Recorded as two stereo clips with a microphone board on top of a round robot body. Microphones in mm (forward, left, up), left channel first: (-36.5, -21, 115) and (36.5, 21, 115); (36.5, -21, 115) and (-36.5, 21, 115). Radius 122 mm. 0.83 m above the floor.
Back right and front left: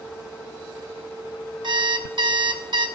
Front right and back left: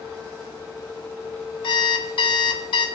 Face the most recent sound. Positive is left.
turn(degrees=0)